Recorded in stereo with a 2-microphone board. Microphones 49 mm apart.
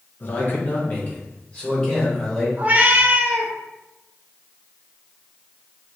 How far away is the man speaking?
About 1.0 m.